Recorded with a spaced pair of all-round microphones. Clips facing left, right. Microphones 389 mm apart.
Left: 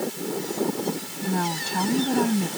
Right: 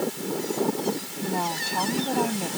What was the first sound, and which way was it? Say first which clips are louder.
A woman speaking: left 4 dB; 25° left (ahead or behind).